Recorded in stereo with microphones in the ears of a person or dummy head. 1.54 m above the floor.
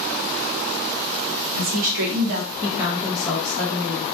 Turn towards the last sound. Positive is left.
turn(degrees=25)  # may be behind; listen again after turning